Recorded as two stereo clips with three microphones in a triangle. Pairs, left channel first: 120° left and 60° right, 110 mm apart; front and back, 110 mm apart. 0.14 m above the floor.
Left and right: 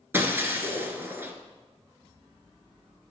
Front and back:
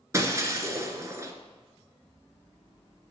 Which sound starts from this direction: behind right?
Breaking glass, at 0.1 s.